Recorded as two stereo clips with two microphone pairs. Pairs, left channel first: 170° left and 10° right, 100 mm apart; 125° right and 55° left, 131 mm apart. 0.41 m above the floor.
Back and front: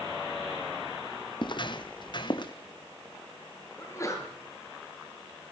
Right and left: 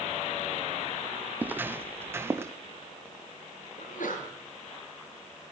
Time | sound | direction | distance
1.4 | footsteps | 135° left | 1.1 m
3.8 | a sneeze | 130° right | 6.5 m